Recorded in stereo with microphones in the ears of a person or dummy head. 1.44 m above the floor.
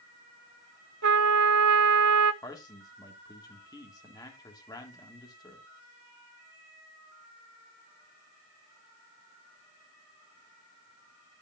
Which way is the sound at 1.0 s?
55° right (ahead or behind).